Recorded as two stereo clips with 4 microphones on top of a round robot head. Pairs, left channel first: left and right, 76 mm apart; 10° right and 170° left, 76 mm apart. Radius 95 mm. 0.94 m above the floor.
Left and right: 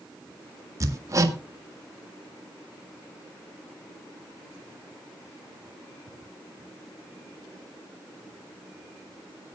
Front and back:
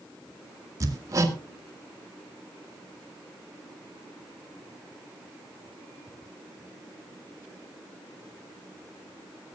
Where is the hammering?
140° right, 1.7 m.